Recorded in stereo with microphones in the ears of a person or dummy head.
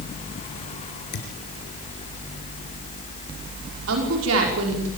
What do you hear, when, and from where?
1.1 s a thud: 55° left (ahead or behind), 4 m
3.9 s a woman speaking: 80° right, 5 m